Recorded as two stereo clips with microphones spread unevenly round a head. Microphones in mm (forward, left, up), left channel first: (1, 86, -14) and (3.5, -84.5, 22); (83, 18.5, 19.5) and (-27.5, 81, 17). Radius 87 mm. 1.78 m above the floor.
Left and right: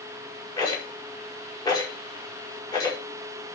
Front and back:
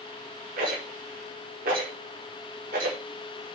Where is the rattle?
165° left, 5 m.